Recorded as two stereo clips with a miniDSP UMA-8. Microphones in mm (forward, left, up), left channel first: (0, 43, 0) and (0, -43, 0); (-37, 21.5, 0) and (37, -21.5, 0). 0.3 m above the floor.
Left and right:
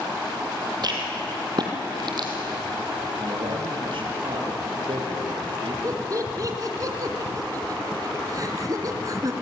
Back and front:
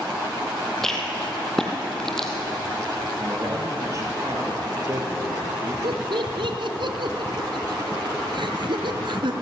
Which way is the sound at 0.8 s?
125° right.